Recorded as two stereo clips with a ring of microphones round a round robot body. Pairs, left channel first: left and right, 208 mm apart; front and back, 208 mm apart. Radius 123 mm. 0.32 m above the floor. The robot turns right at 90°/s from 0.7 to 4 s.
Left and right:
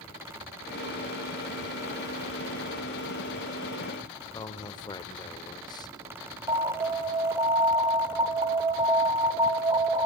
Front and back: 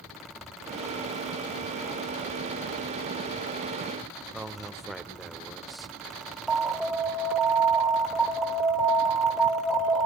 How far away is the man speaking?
About 0.9 m.